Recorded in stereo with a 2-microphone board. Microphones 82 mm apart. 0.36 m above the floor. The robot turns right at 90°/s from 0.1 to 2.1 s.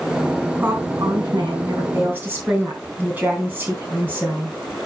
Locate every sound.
0.6 s a woman speaking: 160° right, 3.5 m; by 4.6 s 25° right, 3.5 m